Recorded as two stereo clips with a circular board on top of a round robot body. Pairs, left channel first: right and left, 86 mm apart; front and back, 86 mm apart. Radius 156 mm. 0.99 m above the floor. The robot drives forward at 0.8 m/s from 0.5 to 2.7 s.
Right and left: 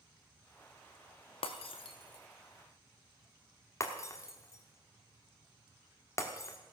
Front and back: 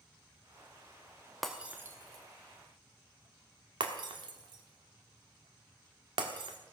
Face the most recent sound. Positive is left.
turn(degrees=-145)